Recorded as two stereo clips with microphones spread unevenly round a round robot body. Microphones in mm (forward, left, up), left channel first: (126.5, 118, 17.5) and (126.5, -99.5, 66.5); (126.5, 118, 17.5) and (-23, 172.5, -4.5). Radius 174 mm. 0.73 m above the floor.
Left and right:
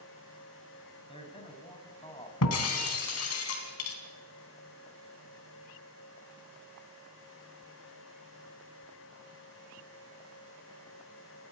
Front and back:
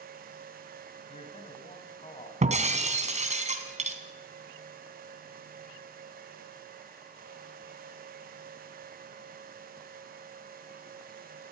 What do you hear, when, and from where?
1.1 s a man speaking: 25° left, 5.5 m
2.4 s breaking glass: 115° left, 3 m